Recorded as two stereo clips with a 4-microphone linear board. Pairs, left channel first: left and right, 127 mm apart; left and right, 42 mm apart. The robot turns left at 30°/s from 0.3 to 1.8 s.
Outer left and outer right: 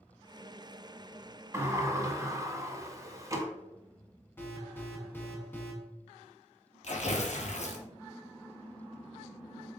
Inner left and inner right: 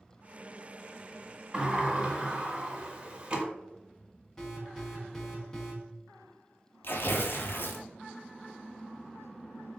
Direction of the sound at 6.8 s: 65° left (ahead or behind).